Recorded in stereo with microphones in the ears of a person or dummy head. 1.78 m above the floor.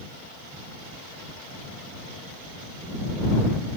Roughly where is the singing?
I don't hear singing.